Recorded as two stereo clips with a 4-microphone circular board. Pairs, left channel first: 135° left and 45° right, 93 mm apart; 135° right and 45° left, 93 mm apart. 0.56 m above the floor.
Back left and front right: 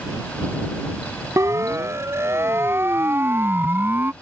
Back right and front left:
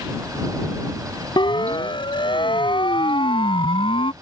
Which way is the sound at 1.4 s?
100° right.